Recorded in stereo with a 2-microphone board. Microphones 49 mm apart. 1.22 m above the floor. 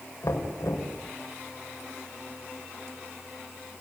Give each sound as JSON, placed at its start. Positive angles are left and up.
{"t": 0.2, "sound": "knocking", "side_deg": 90, "distance_m": 5.0}